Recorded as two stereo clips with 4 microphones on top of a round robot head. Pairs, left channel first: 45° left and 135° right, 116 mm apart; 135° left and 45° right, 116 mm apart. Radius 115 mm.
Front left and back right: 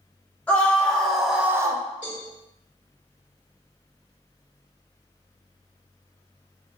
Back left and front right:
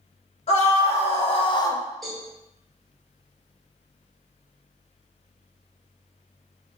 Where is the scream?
120° left, 1.4 m; by 1.8 s 155° right, 0.5 m.